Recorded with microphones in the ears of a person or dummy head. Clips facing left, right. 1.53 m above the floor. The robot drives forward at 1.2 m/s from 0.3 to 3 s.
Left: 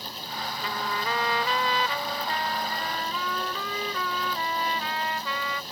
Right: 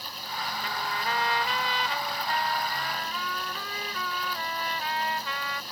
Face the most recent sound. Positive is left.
turn(degrees=75)  # may be behind; listen again after turning